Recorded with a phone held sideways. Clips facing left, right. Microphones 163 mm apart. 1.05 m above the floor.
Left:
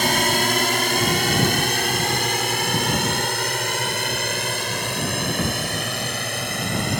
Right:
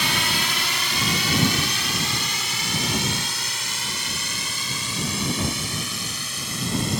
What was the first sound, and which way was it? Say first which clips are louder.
A drone: left 7 dB; 50° left (ahead or behind).